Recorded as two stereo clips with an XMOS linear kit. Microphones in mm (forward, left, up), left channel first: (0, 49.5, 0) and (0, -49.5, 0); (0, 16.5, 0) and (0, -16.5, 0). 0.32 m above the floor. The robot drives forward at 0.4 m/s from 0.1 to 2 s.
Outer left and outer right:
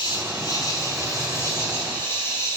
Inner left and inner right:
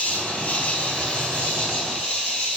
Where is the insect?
50° left (ahead or behind), 0.7 m; by 2.6 s 25° left (ahead or behind), 1.3 m.